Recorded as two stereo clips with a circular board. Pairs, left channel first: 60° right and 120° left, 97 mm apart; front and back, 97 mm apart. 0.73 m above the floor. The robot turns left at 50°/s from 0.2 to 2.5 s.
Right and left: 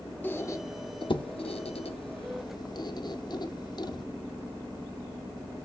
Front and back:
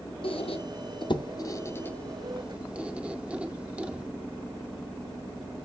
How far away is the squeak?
About 0.6 m.